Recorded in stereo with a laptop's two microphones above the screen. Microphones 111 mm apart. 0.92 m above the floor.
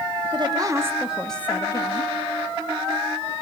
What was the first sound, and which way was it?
A woman speaking, 45° right (ahead or behind).